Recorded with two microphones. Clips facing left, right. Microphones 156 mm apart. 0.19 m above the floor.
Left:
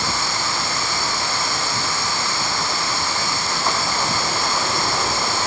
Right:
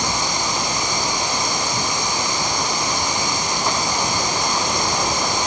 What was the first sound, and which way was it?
Running water, 15° right (ahead or behind).